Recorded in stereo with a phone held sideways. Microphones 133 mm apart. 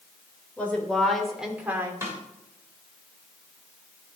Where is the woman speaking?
10° left (ahead or behind), 3 m; by 1.9 s 20° right (ahead or behind), 2 m.